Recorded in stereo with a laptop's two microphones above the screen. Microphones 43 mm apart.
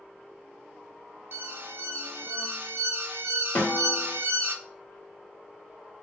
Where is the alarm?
55° right (ahead or behind), 0.6 m.